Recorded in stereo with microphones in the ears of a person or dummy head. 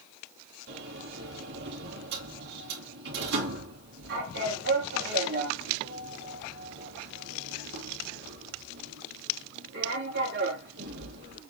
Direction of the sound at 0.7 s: 65° right (ahead or behind).